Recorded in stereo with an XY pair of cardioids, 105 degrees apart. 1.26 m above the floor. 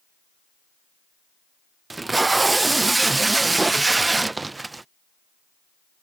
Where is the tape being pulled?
20° right.